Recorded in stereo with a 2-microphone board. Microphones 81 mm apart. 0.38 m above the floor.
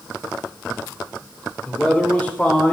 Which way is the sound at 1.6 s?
10° left (ahead or behind).